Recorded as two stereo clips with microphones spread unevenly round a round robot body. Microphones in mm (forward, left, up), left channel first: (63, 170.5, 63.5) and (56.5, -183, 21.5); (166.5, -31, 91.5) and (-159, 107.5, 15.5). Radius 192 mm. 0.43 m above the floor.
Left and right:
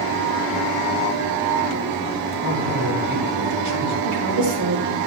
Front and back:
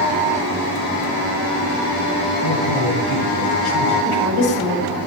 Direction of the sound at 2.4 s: 65° right.